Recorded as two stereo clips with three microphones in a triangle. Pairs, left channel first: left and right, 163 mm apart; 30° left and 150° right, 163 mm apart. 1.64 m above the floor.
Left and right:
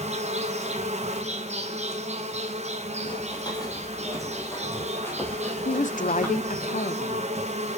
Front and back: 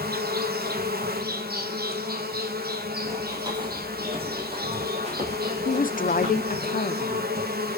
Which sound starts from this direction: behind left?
Running footsteps, at 3.0 s.